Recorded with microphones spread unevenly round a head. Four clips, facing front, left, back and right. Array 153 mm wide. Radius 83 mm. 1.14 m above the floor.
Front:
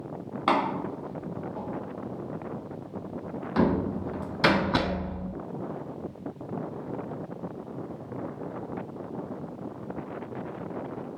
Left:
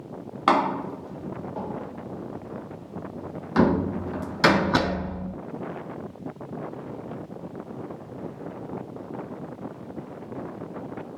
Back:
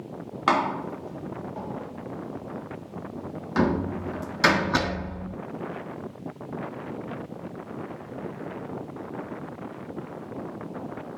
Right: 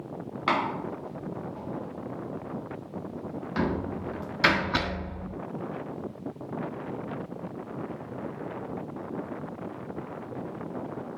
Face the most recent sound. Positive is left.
turn(degrees=80)